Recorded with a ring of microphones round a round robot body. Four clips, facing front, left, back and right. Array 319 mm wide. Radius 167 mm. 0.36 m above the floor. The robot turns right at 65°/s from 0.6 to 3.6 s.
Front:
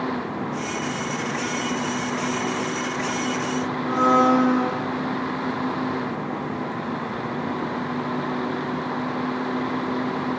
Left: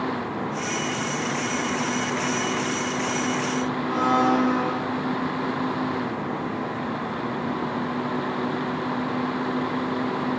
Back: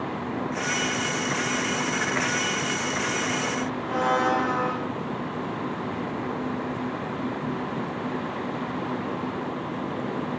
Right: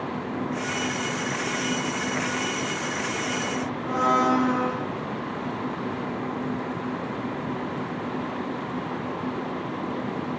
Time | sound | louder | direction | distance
3.9 | a blender | even, front 6 dB | 10° left | 7.5 m